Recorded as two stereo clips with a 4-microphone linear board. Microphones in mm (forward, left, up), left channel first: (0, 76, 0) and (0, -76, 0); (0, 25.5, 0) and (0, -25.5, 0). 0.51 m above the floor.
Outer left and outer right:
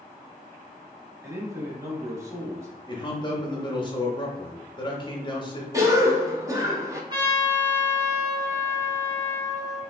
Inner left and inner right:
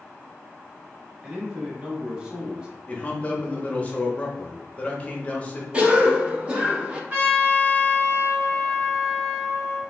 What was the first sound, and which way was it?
A man speaking, 20° right (ahead or behind).